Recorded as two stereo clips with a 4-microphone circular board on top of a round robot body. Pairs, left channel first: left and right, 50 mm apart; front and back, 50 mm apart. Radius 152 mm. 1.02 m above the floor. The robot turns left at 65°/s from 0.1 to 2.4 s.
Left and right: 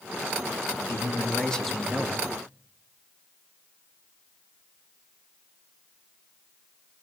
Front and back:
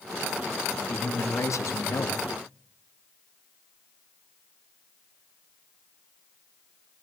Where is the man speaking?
55° left, 2.5 m; by 2.2 s 35° right, 2.5 m.